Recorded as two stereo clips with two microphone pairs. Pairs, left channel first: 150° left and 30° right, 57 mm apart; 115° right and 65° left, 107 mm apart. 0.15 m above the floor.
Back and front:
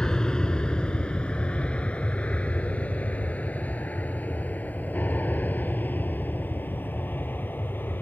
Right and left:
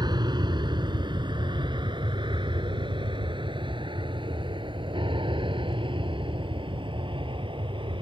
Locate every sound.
0.0 s an aircraft: 80° left; by 8.0 s 100° left